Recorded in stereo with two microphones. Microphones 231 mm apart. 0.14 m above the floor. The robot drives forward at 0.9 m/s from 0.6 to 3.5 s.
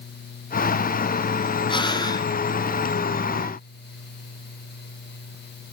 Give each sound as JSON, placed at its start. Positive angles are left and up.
{"t": 1.7, "sound": "breathing", "side_deg": 20, "distance_m": 1.2}